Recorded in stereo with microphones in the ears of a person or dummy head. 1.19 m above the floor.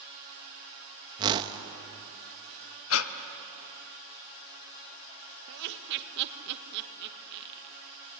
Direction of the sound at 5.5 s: 65° right (ahead or behind).